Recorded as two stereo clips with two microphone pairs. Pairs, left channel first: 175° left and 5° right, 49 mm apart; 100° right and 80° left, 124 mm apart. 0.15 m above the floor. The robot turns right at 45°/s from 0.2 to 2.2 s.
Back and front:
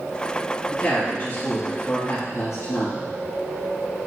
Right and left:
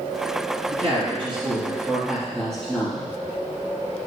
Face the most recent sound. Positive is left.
turn(degrees=170)